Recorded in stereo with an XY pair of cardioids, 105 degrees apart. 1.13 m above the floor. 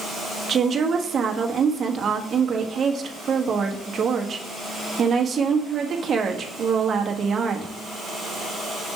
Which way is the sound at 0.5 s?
45° right.